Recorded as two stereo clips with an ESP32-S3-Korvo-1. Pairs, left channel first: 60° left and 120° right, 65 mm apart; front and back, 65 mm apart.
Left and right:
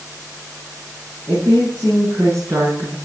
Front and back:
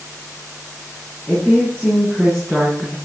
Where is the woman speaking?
70° right, 7.5 m; by 3.0 s 90° right, 7 m.